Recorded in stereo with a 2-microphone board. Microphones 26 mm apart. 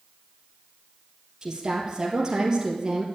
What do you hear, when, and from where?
1.4 s a woman speaking: 30° right (ahead or behind), 2.5 m